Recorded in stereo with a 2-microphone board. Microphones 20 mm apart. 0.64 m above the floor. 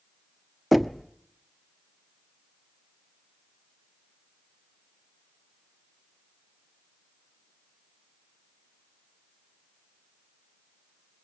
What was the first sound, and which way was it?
Knocking, centre (ahead or behind).